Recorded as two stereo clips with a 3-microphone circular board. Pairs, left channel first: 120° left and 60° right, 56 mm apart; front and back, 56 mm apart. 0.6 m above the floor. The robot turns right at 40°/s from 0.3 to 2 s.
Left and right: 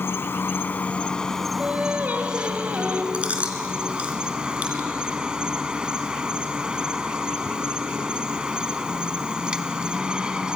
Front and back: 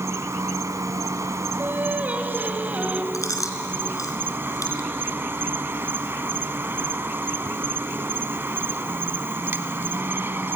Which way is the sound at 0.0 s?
160° left.